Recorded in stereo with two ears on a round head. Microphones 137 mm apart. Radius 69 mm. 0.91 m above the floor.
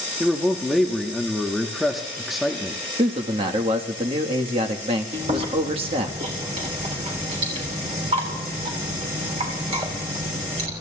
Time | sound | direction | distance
0.2 | a man speaking | centre (ahead or behind) | 1.0 m
3.0 | a man speaking | 40° right (ahead or behind) | 1.4 m
5.1 | chewing | 45° right (ahead or behind) | 3 m